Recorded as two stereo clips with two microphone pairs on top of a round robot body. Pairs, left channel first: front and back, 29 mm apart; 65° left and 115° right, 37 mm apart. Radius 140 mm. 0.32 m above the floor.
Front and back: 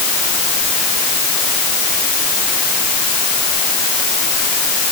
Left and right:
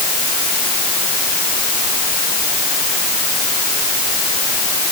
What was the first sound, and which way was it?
Only background noise.